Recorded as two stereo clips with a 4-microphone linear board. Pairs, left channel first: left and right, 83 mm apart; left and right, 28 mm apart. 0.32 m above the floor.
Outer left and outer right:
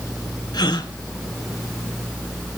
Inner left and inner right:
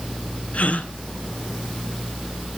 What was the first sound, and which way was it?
A gasp, 55° left (ahead or behind).